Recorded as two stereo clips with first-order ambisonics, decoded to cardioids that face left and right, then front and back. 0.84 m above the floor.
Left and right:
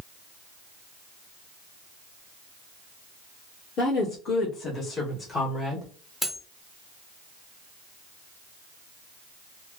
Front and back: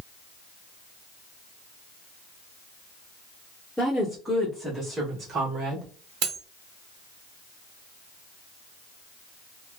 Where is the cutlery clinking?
175° left, 0.8 m.